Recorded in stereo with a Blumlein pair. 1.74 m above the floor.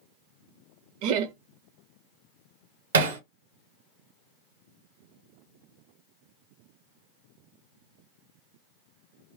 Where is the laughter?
45° right, 0.7 m.